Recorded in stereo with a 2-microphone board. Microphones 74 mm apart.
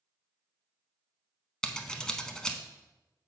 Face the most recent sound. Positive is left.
turn(degrees=10)  # may be behind; listen again after turning